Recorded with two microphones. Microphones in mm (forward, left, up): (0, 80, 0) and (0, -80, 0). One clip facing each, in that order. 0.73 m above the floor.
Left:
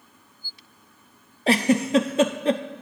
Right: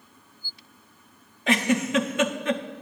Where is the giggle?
35° left (ahead or behind), 0.7 m.